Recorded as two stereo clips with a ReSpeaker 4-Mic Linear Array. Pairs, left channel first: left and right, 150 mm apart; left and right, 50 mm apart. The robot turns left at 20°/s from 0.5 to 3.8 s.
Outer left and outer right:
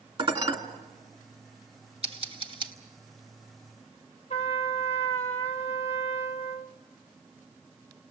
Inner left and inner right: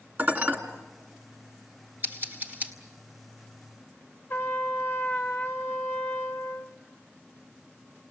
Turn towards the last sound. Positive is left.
turn(degrees=45)  # may be behind; listen again after turning